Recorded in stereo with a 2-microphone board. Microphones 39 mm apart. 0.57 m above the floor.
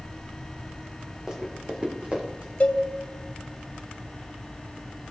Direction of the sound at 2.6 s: 40° left (ahead or behind).